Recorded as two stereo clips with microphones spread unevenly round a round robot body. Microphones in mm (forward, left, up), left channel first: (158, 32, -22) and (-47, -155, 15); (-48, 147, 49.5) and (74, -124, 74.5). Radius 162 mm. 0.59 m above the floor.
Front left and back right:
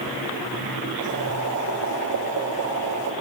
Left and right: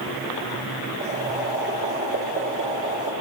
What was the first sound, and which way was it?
Boiling, 110° right.